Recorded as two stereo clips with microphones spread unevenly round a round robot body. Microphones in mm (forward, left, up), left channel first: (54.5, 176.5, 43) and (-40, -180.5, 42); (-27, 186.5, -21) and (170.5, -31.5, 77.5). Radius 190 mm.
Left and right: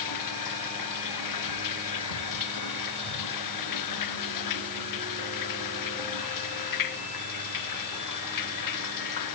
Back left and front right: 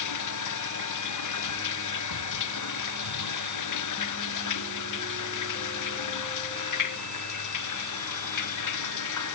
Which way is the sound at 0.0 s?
115° left.